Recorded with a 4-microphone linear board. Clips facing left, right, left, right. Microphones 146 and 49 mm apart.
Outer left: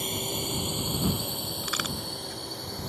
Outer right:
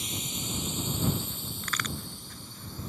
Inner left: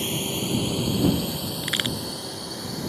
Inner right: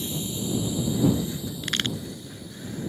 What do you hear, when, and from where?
0.0 s a drone: 55° left (ahead or behind); by 2.9 s 70° left (ahead or behind)
1.6 s a crack: 10° left (ahead or behind)